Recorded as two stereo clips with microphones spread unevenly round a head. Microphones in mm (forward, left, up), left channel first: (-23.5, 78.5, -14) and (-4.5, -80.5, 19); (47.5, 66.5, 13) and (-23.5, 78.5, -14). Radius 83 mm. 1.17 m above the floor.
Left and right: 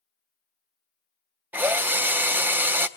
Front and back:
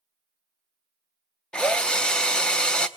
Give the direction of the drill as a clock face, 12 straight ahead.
1 o'clock.